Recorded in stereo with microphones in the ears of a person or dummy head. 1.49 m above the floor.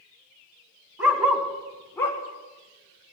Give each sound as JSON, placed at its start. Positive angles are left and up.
{"t": 1.0, "sound": "a dog barking", "side_deg": -10, "distance_m": 2.5}